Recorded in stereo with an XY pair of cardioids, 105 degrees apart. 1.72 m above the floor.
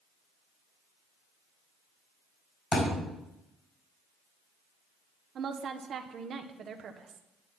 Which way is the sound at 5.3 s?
55° right.